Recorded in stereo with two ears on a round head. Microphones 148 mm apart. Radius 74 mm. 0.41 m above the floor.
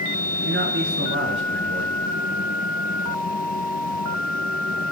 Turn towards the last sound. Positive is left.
turn(degrees=-80)